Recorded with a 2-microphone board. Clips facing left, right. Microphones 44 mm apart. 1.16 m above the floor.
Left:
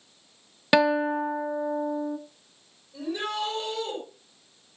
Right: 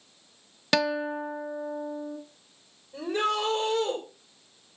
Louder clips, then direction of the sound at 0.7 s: Left 5 dB; 15° left (ahead or behind).